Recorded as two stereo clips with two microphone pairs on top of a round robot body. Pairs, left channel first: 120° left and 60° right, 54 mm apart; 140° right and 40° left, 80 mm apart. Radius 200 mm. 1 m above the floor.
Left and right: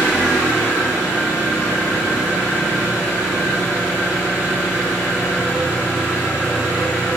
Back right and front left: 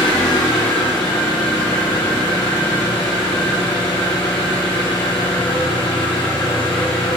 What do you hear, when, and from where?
0.0 s an engine running: 130° right, 3 m